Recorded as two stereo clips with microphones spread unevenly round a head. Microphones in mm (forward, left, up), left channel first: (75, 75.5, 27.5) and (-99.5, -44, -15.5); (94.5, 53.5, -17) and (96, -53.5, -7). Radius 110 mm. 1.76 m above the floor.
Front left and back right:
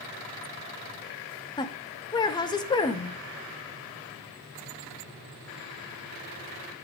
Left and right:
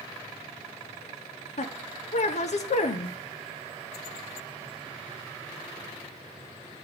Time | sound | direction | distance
1.6 | a woman speaking | 95° left | 0.8 m